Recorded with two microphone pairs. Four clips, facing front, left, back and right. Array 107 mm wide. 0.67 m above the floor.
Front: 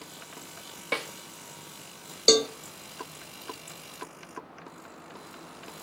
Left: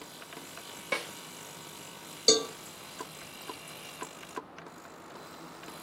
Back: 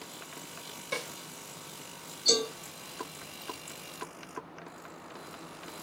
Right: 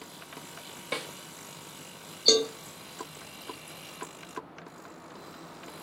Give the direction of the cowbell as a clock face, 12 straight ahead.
12 o'clock.